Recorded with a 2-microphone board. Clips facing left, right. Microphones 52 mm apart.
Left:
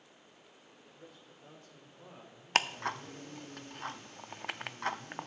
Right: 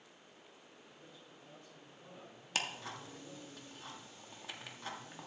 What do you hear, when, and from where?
0.8 s a man speaking: 65° left (ahead or behind), 2 m; by 3.5 s 35° left (ahead or behind), 4 m
2.5 s ticking: 55° left (ahead or behind), 0.5 m